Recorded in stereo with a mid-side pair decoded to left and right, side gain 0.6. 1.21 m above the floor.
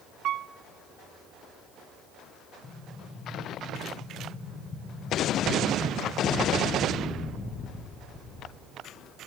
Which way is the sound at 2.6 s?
30° left.